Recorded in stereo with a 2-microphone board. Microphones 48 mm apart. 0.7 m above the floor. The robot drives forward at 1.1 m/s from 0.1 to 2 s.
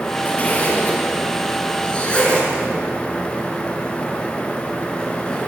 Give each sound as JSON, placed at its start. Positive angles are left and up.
{"t": 0.2, "sound": "a zipper", "side_deg": 35, "distance_m": 3.5}